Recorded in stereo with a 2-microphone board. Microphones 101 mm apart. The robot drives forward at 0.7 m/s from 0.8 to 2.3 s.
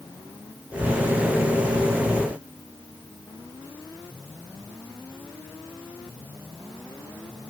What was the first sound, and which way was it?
Only background noise.